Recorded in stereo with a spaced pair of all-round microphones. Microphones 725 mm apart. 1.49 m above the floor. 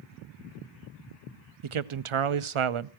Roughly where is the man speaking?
Right.